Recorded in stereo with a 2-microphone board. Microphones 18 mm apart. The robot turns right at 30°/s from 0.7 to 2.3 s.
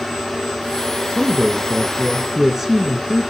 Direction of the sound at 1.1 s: 5° left (ahead or behind).